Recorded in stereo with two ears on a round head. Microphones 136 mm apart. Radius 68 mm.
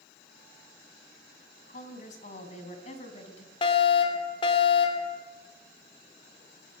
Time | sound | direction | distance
1.7 | a woman speaking | 50° left (ahead or behind) | 3.5 m
3.6 | a fire alarm | 35° left (ahead or behind) | 3 m